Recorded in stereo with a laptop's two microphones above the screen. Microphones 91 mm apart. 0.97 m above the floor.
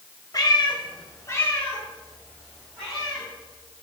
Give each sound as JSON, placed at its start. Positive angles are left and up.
{"t": 0.3, "sound": "a cat meowing", "side_deg": 40, "distance_m": 1.1}